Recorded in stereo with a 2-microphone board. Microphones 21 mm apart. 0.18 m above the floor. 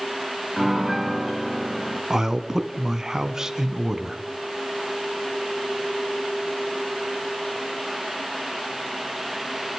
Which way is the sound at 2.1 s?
25° right (ahead or behind).